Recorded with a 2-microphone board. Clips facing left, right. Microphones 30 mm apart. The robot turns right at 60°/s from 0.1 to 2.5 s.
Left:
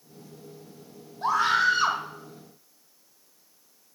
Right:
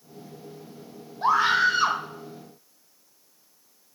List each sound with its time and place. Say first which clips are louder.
1.2 s a scream: right 2 dB; 20° right (ahead or behind), 1.0 m; by 2.0 s centre (ahead or behind), 1.0 m